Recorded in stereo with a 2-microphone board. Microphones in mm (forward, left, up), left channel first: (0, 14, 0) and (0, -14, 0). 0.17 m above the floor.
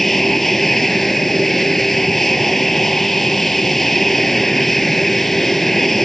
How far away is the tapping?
I don't hear tapping.